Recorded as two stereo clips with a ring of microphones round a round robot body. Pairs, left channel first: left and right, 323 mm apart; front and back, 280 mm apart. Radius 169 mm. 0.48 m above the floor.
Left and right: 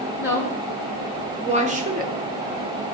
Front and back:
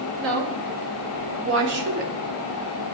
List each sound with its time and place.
0.2 s a woman speaking: 170° right, 1.8 m; by 2.1 s 140° right, 1.2 m